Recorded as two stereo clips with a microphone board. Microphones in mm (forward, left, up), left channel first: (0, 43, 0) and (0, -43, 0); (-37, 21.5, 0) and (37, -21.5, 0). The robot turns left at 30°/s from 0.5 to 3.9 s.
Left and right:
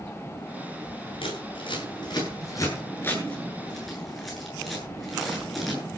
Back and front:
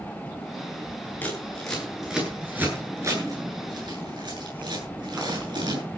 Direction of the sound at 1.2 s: 80° left.